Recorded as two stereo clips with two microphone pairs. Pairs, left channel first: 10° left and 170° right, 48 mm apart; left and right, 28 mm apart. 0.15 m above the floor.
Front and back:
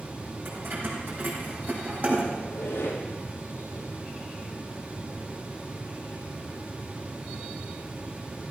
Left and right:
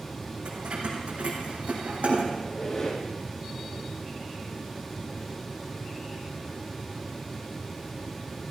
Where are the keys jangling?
140° right, 4.5 m; by 2.2 s 120° right, 4.5 m.